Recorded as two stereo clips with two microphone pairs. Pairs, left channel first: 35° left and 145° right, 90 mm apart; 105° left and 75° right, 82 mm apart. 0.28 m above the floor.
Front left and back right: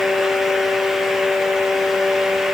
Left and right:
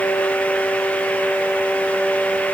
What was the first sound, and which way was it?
Only background noise.